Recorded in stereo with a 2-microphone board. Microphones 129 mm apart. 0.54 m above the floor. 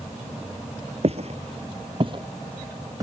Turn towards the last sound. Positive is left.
turn(degrees=-25)  # may be behind; listen again after turning